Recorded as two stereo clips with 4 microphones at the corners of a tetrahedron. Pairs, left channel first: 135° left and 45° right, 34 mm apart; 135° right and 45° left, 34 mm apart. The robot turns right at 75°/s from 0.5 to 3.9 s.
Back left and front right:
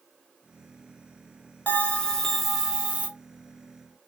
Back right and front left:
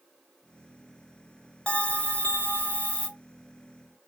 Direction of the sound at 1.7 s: 170° left.